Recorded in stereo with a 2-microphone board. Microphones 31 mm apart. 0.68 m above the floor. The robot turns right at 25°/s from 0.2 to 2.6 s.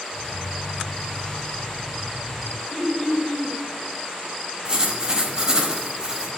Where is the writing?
25° right (ahead or behind), 0.8 m.